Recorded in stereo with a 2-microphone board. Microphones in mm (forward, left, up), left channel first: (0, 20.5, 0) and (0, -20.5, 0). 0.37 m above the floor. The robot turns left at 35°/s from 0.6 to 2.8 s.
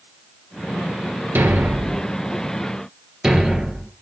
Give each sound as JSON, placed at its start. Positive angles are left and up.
{"t": 1.4, "sound": "a thud", "side_deg": -65, "distance_m": 1.9}